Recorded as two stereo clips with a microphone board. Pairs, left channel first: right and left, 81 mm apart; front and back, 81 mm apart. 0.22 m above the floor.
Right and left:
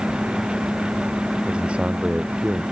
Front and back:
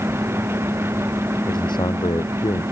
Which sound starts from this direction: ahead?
A man speaking, at 1.5 s.